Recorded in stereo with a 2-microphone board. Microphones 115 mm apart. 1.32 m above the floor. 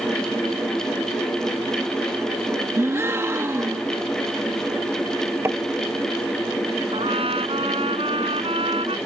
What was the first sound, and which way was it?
A gasp, 25° right (ahead or behind).